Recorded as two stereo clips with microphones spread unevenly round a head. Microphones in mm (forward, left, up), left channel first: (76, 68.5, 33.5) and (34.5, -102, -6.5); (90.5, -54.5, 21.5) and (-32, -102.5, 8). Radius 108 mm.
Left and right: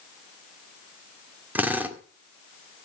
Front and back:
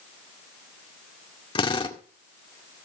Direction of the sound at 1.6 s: 15° right.